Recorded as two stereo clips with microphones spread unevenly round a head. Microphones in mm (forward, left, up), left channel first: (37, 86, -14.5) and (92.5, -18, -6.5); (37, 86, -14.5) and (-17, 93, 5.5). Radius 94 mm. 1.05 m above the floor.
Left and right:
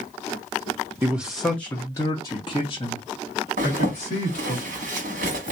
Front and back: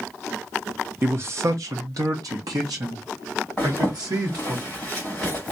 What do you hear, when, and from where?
1.0 s a man speaking: 125° right, 0.7 m; by 4.6 s 160° left, 2 m
3.6 s a zipper: 100° right, 1.2 m